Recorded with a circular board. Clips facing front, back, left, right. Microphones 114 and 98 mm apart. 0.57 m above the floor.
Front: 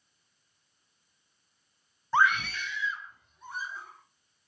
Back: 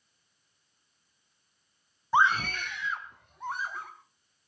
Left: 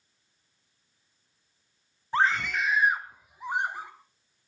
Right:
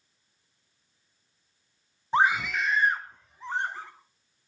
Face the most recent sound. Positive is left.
turn(degrees=165)